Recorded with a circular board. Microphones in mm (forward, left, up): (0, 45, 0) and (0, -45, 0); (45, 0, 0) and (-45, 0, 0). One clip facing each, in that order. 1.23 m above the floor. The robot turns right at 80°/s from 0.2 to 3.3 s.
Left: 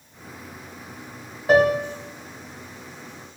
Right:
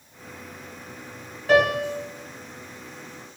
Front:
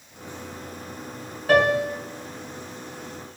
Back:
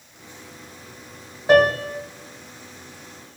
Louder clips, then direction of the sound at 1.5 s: Left 2 dB, back 3 dB; 140° left.